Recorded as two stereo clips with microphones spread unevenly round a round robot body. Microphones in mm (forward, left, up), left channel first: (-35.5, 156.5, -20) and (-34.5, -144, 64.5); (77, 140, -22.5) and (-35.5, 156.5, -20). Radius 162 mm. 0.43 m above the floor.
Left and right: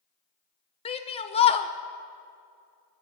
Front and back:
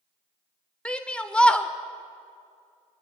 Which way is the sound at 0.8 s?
65° left.